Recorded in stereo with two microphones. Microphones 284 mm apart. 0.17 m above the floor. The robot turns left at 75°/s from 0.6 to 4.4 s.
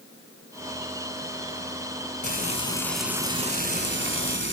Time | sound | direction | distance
2.2 | frying | 55° left | 1.0 m